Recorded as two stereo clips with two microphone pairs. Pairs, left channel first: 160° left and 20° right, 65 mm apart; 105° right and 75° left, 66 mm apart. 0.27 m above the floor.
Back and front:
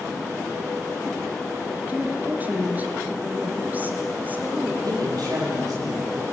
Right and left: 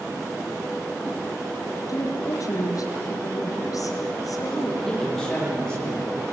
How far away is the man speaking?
About 9 m.